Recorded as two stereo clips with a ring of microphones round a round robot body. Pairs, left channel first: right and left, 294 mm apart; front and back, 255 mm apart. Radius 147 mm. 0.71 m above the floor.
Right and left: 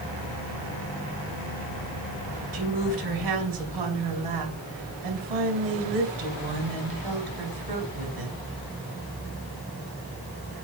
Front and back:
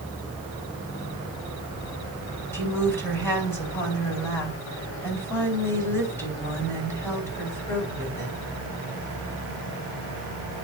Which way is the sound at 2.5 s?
80° left.